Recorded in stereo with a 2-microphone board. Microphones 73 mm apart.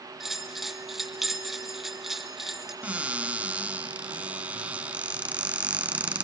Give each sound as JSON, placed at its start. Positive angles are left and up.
{"t": 0.2, "sound": "a bell", "side_deg": -5, "distance_m": 1.8}
{"t": 2.8, "sound": "a cupboard door", "side_deg": -20, "distance_m": 0.8}